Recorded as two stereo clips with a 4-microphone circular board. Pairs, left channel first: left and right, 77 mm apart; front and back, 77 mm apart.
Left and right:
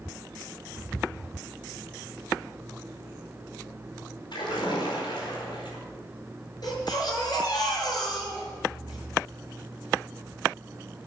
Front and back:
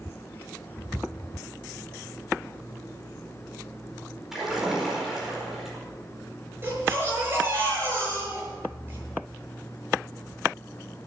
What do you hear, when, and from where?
4.3 s a splash: 95° left, 4.5 m
6.6 s a baby crying: 120° left, 6.5 m